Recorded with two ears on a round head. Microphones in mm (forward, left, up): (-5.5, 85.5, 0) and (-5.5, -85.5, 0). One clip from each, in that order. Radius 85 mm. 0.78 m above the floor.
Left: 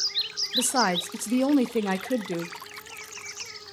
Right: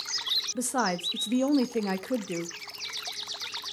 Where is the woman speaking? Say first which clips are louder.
Left 5 dB; 10° left (ahead or behind), 0.6 m.